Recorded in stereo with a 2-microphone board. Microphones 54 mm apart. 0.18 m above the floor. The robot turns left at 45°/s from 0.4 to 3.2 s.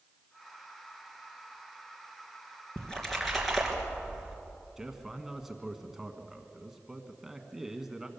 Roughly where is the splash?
Left.